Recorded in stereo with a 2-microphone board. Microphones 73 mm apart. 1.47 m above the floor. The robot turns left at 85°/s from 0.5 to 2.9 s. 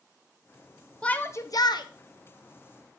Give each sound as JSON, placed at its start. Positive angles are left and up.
{"t": 1.0, "sound": "a shout", "azimuth_deg": 165, "distance_m": 0.9}